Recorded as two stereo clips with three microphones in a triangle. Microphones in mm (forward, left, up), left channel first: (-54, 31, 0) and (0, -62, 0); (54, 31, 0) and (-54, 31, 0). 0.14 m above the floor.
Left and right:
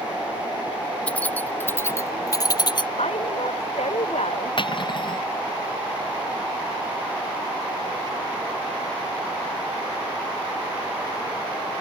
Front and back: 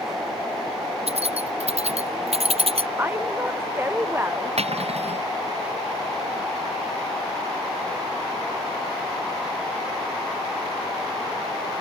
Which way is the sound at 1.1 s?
160° right.